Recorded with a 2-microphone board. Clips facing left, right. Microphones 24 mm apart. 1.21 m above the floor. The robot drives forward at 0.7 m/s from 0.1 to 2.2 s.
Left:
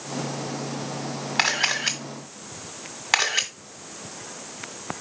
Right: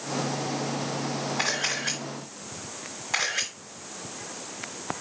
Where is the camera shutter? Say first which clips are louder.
Left 7 dB; 65° left (ahead or behind), 2 m; by 3.5 s 60° left (ahead or behind), 2 m.